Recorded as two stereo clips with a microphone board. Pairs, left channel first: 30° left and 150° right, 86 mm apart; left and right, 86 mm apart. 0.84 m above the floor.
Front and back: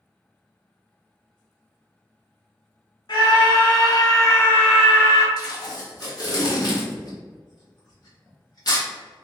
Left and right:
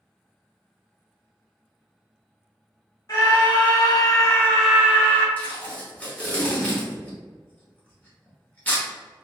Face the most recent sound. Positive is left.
turn(degrees=25)